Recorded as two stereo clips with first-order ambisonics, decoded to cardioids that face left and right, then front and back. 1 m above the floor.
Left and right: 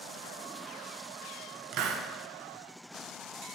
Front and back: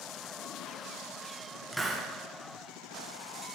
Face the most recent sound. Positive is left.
turn(degrees=-95)